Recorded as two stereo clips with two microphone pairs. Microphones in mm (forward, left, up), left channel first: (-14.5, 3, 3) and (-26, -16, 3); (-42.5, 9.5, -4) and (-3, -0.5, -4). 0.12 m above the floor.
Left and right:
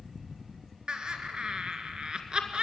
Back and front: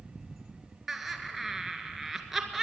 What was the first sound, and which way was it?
Laughter, 100° right.